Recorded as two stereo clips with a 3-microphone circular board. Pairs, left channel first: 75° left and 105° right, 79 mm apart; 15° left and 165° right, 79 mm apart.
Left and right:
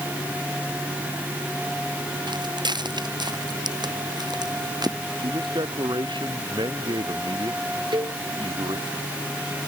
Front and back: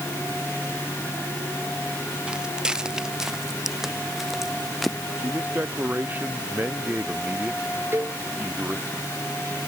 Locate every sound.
2.3 s footsteps: 85° right; by 5.0 s 75° right
5.2 s a man speaking: 95° right
7.9 s a cowbell: 105° right